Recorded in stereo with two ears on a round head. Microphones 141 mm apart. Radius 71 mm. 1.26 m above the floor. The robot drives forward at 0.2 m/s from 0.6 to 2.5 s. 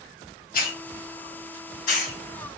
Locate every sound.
0.5 s a hiss: 55° left (ahead or behind), 1.2 m; by 2.2 s 50° left (ahead or behind), 1.3 m